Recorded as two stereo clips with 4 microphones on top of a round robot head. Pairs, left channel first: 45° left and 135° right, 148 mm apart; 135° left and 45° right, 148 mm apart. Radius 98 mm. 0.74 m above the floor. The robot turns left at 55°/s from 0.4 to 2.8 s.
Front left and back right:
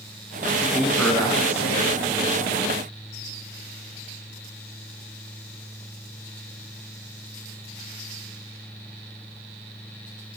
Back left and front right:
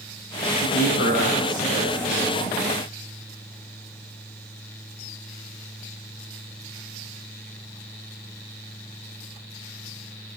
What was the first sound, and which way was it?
A man speaking, 150° left.